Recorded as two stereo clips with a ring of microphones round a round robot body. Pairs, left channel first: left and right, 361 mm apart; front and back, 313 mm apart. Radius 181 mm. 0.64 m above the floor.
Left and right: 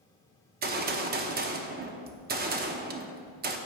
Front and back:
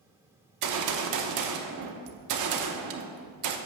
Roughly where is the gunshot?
Behind right.